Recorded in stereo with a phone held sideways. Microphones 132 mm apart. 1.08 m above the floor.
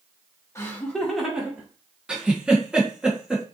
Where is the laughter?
20° left (ahead or behind), 1.0 m; by 1.7 s 10° right (ahead or behind), 1.9 m.